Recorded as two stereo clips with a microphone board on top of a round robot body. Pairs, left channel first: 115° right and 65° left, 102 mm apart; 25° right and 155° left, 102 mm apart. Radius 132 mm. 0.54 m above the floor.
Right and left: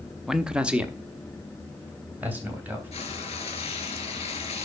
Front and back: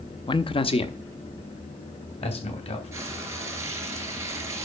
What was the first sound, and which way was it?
A man speaking, 20° right.